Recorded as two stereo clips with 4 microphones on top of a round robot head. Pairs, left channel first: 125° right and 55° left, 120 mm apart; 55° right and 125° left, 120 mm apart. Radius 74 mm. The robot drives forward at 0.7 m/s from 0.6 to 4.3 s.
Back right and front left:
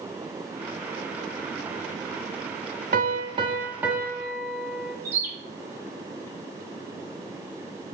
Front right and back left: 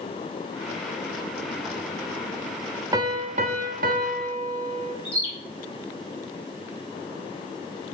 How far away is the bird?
About 2 m.